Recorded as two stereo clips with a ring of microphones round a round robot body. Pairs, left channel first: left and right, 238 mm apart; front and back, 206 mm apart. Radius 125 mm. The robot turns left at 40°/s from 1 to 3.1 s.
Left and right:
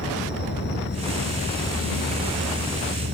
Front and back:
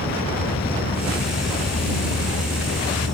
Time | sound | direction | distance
0.0 | an insect | 45° left | ?